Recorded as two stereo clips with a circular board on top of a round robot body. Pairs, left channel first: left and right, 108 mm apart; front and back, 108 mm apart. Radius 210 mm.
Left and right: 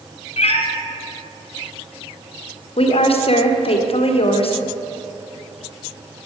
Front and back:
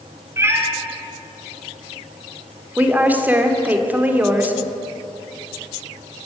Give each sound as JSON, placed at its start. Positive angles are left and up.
{"t": 0.4, "sound": "a cat meowing", "azimuth_deg": 115, "distance_m": 2.0}
{"t": 2.8, "sound": "a woman speaking", "azimuth_deg": 105, "distance_m": 2.0}